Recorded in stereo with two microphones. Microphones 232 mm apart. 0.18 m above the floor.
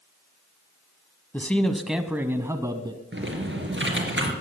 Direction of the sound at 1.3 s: 10° left (ahead or behind).